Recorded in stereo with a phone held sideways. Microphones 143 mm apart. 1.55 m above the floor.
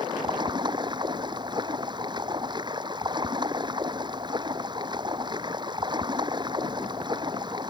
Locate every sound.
0.0 s running water: 35° right (ahead or behind)